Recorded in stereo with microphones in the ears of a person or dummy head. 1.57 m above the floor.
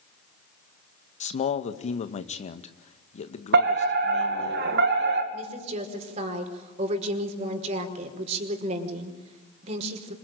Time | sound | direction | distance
1.2 | a man speaking | 40° left (ahead or behind) | 1.7 m
3.5 | a fire alarm | 65° right (ahead or behind) | 3 m
5.3 | a woman speaking | 35° right (ahead or behind) | 5 m